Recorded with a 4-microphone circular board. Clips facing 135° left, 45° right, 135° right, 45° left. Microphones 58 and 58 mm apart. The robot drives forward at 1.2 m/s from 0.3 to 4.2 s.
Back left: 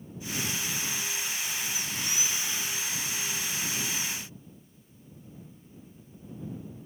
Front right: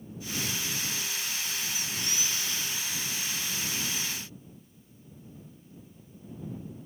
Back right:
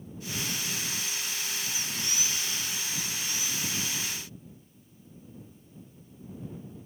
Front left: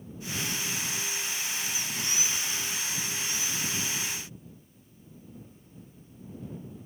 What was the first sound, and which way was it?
Only background noise.